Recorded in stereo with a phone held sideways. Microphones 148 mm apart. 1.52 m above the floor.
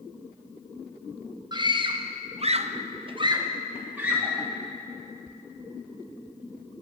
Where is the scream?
30° right (ahead or behind), 1.2 m; by 4.5 s 5° right (ahead or behind), 1.4 m.